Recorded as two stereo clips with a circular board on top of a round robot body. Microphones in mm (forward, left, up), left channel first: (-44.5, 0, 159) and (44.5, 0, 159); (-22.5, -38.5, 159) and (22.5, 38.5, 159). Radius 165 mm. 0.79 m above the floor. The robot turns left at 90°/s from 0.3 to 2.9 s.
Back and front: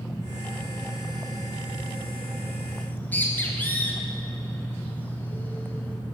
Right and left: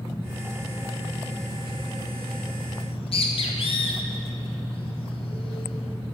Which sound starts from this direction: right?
A bird, at 2.8 s.